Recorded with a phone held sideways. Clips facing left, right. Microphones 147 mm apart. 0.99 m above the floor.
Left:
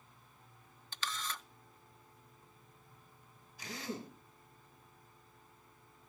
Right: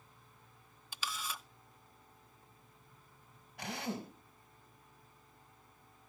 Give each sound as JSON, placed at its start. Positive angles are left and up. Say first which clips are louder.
{"t": 0.9, "sound": "a camera shutter", "louder": "even", "side_deg": -10, "distance_m": 0.6}
{"t": 3.6, "sound": "a drill", "louder": "right 3 dB", "side_deg": -80, "distance_m": 4.0}